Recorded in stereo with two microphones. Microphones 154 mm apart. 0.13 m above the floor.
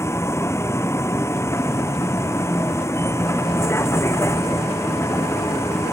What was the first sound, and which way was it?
A vehicle, 20° left (ahead or behind).